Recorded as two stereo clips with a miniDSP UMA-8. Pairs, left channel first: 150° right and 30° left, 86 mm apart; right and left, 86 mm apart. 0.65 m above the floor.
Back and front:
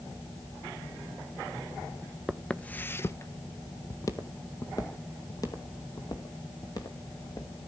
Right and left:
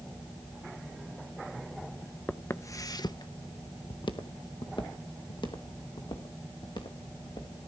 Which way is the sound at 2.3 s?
65° right.